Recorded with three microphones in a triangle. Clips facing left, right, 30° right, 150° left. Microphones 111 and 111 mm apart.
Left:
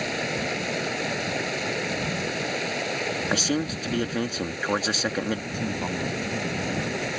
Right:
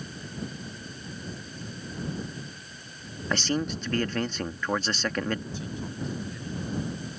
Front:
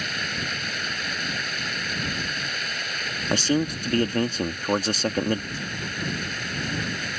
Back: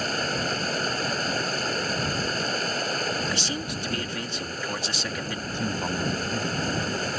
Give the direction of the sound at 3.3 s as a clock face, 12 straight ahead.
12 o'clock.